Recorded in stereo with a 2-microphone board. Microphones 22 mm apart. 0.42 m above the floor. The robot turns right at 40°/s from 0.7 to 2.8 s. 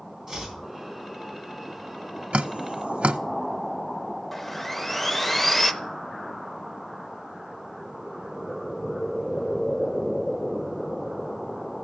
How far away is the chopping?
About 3.5 m.